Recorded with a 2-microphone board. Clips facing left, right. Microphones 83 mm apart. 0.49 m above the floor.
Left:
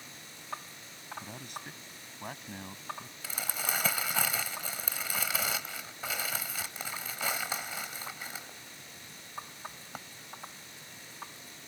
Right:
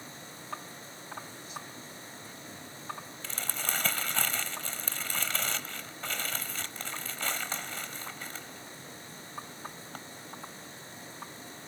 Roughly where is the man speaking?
Left.